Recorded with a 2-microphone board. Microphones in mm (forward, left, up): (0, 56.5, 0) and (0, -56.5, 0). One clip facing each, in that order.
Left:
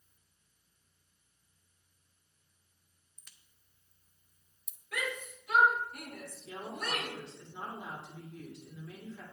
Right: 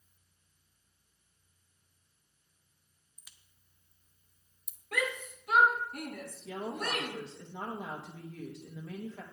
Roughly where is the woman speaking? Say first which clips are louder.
Right 3 dB; right.